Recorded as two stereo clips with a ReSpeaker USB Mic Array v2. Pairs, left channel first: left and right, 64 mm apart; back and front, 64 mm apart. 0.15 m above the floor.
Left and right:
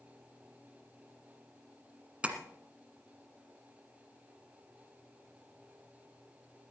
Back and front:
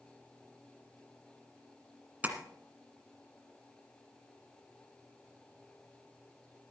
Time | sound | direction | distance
2.2 | tapping | 35° right | 1.7 m